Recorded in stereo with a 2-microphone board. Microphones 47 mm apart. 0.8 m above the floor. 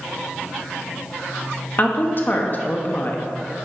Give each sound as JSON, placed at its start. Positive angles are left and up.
{"t": 1.8, "sound": "a woman speaking", "side_deg": 45, "distance_m": 1.2}